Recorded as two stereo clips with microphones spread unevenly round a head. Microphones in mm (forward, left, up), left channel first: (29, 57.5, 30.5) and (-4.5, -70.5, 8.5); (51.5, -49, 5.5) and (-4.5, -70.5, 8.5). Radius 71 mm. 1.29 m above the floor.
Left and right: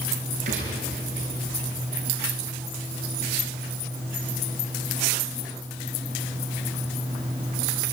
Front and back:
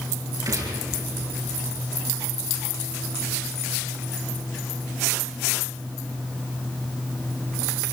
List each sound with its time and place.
0.5 s a gunshot: 145° right, 7.5 m